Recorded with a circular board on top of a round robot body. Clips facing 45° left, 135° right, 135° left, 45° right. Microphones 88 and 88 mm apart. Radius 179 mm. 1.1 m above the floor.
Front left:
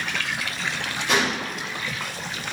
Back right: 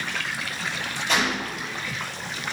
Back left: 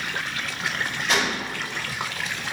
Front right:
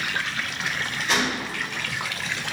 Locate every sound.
1.1 s a gunshot: 40° left, 1.3 m